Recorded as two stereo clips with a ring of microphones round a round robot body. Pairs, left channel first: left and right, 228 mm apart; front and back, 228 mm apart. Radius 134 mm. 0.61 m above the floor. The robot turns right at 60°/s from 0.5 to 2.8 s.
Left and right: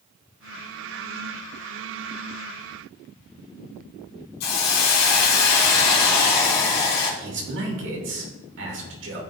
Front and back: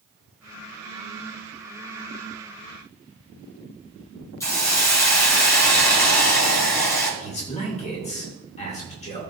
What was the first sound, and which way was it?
A hiss, 80° left.